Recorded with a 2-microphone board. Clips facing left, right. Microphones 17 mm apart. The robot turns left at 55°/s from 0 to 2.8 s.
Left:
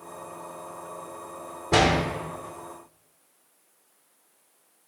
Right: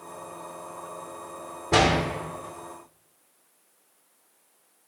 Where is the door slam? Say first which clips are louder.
Even; centre (ahead or behind), 0.9 m; by 2.0 s 10° right (ahead or behind), 0.9 m.